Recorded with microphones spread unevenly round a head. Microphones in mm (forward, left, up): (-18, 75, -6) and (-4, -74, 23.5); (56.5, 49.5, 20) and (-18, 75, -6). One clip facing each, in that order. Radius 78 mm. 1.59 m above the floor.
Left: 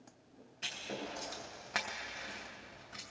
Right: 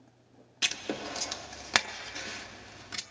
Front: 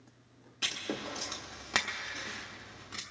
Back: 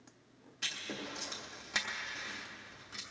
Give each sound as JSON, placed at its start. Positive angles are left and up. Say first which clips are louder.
{"t": 0.6, "sound": "writing", "louder": "right 7 dB, front 5 dB", "azimuth_deg": -80, "distance_m": 0.9}